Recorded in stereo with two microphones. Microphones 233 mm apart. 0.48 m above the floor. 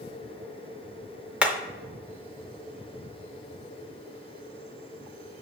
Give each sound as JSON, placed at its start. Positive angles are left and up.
{"t": 1.4, "sound": "hammering", "side_deg": -5, "distance_m": 0.6}